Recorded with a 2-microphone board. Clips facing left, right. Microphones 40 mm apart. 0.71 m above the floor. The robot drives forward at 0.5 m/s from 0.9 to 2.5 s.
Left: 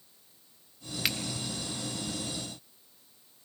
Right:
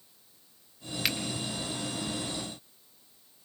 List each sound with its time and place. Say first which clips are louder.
1.1 s a finger snap: right 1 dB; centre (ahead or behind), 0.9 m